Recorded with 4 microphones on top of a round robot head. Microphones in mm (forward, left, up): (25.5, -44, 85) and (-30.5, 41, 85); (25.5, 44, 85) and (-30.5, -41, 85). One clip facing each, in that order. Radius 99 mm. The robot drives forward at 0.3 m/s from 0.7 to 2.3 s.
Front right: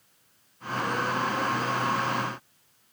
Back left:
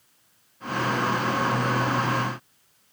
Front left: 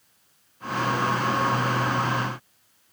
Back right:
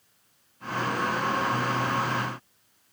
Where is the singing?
No singing in this recording.